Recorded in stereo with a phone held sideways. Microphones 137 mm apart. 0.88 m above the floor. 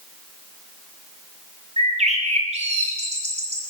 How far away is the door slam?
No door slam in this recording.